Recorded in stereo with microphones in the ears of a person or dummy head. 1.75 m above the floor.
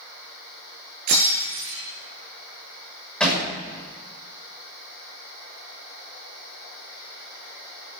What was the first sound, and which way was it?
Breaking glass, 60° right (ahead or behind).